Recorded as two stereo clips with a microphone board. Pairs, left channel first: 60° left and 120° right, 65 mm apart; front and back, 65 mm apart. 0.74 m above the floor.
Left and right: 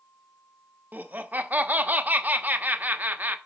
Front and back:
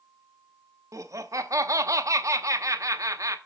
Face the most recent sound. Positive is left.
turn(degrees=180)